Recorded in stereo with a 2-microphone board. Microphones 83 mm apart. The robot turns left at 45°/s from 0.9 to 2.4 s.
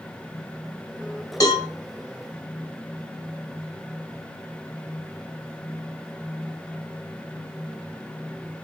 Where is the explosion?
I don't hear an explosion.